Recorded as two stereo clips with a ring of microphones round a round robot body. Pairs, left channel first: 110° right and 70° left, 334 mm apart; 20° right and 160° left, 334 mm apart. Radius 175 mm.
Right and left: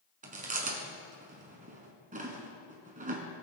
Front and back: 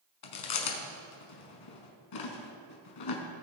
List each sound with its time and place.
0.2 s chewing: straight ahead, 1.4 m